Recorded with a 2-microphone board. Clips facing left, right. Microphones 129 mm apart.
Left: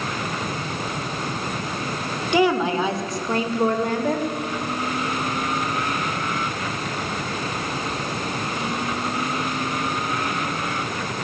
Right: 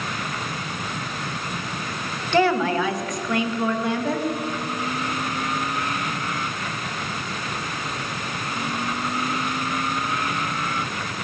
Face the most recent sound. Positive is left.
turn(degrees=50)  # may be behind; listen again after turning